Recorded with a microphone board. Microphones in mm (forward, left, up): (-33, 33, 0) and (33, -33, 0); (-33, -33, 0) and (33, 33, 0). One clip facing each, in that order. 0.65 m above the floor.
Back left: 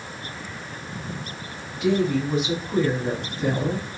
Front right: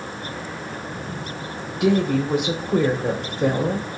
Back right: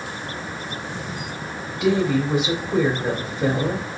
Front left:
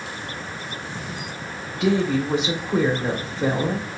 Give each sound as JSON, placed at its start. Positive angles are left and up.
{"t": 1.8, "sound": "a woman speaking", "azimuth_deg": -40, "distance_m": 1.4}